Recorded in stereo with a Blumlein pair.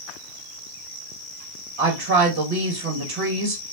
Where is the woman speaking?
50° right, 1.5 m.